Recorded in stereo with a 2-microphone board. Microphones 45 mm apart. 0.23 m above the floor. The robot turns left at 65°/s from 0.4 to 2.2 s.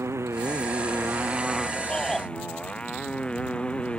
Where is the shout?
25° left (ahead or behind); by 2.3 s 5° left (ahead or behind).